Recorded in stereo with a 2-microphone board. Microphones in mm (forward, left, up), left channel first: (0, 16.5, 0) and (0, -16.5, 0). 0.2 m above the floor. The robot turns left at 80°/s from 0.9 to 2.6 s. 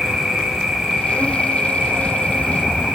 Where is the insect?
10° right, 3 m; by 3.0 s 145° right, 3 m.